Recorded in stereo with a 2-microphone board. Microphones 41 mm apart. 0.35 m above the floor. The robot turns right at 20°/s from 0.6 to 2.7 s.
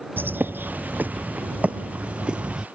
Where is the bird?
60° right; by 2.7 s 20° right.